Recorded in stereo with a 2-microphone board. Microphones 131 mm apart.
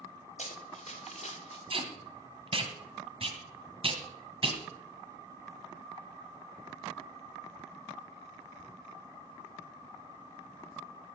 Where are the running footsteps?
55° left (ahead or behind), 3 m; by 1.6 s 50° left (ahead or behind), 2 m.